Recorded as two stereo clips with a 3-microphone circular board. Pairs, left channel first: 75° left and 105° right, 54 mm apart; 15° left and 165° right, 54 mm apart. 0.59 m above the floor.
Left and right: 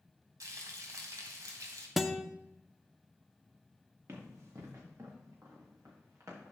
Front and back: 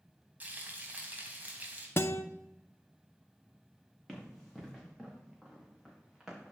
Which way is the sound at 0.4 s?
105° right.